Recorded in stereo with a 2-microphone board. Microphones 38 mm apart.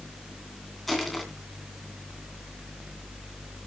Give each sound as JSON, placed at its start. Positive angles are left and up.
{"t": 0.9, "sound": "crushing", "side_deg": 0, "distance_m": 2.5}